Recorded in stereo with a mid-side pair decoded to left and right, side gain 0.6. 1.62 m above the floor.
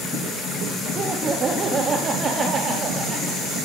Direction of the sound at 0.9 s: 35° right.